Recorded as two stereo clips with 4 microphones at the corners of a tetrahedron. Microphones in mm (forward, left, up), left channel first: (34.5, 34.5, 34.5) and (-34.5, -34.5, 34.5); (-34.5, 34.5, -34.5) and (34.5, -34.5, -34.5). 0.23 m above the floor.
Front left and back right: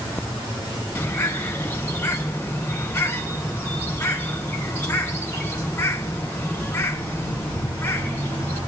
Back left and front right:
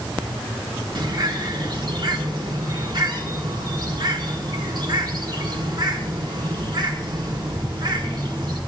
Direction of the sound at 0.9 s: 20° right.